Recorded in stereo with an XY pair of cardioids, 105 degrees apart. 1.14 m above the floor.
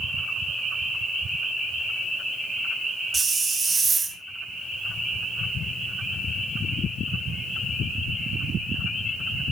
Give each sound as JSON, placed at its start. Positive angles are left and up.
{"t": 3.1, "sound": "a hiss", "azimuth_deg": -30, "distance_m": 1.5}